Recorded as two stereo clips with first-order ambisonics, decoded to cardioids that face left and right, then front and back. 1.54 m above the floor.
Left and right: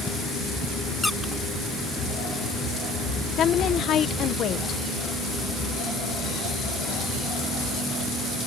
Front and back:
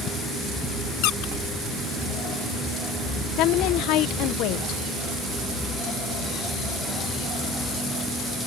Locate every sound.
1.0 s a squeak: 5° left
3.4 s a woman speaking: 35° left